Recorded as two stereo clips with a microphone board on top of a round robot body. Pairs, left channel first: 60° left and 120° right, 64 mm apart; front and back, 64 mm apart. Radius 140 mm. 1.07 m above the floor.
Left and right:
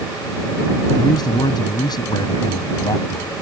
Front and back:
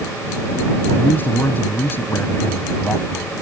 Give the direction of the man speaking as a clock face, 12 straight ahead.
10 o'clock.